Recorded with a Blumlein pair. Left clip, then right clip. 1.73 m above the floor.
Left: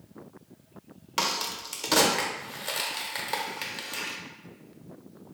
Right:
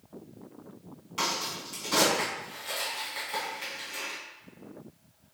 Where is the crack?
60° left, 1.0 m.